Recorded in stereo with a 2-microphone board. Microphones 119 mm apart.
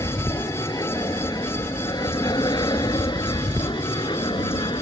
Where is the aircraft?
30° left (ahead or behind); by 4.8 s 40° left (ahead or behind).